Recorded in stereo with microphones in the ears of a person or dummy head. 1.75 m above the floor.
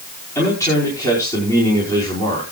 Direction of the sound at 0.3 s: 20° left (ahead or behind).